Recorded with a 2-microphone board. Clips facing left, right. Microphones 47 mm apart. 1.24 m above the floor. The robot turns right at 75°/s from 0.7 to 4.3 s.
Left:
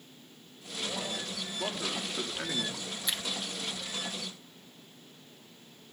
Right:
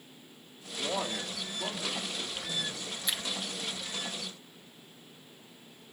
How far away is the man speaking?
About 3.5 m.